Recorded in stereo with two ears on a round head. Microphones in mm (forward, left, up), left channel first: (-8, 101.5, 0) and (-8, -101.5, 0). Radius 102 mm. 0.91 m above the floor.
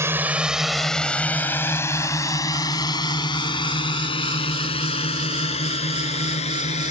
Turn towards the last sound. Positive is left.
turn(degrees=30)  # may be behind; listen again after turning